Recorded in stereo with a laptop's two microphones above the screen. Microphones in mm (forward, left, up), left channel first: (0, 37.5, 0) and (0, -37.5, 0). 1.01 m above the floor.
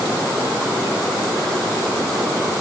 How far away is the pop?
I don't hear a pop.